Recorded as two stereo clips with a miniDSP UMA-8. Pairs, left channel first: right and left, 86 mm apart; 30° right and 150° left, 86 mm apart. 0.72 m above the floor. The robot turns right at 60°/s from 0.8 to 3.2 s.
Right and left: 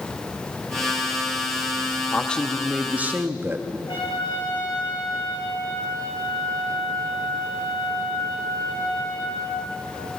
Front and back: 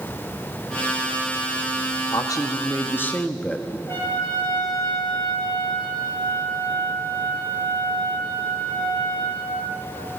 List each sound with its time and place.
2.1 s a man speaking: 30° right, 0.8 m; by 3.8 s 40° left, 0.8 m
3.9 s a trumpet: 90° right, 4 m